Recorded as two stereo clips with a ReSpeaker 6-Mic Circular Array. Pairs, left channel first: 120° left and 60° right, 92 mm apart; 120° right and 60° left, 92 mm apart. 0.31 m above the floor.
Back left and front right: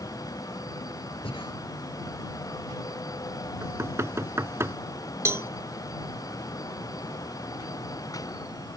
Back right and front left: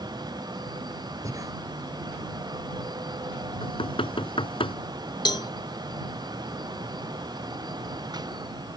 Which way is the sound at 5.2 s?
110° right.